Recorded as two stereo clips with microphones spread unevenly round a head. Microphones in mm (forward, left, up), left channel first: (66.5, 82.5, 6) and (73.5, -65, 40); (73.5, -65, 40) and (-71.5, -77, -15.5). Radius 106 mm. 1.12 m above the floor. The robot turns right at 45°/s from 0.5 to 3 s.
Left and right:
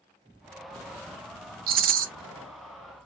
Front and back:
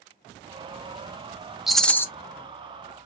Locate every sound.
1.7 s a rattle: 85° right, 0.5 m; by 2.1 s 65° right, 0.5 m